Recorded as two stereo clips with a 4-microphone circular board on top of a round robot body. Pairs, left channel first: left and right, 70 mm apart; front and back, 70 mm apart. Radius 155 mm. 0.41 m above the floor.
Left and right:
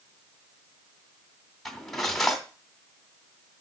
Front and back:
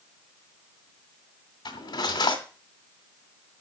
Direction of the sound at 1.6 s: 5° left.